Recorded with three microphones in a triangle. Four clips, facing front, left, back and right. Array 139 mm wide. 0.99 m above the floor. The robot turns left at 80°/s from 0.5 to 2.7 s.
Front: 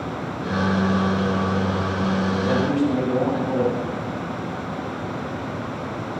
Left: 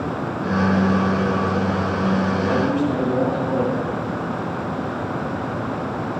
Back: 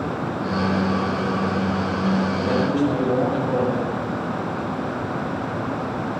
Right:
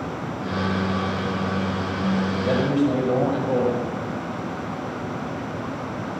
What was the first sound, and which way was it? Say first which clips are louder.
A man speaking: right 2 dB, even; 80° right.